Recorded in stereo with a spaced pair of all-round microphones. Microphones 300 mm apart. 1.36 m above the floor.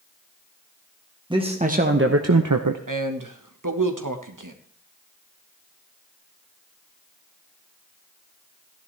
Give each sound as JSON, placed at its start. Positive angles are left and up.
{"t": 1.3, "sound": "a man speaking", "side_deg": -15, "distance_m": 1.5}
{"t": 2.9, "sound": "a man speaking", "side_deg": -85, "distance_m": 1.4}